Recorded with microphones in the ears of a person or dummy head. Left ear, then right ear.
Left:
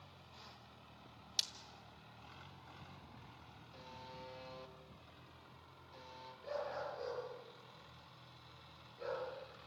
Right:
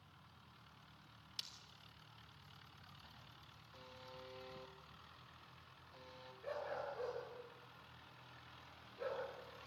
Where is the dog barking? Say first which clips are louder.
Left 2 dB; 25° right (ahead or behind), 7 m.